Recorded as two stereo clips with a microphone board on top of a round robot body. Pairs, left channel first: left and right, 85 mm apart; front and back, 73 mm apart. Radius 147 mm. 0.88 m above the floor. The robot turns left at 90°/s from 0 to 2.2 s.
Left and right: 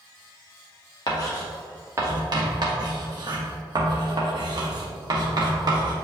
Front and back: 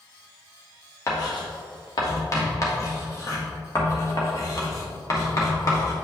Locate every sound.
1.1 s writing: 50° left, 1.2 m; by 6.0 s 50° right, 1.2 m